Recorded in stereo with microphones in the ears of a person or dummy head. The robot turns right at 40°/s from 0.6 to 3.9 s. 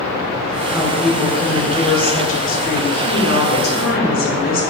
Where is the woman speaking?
10° right, 0.6 m; by 4.6 s 120° left, 0.6 m.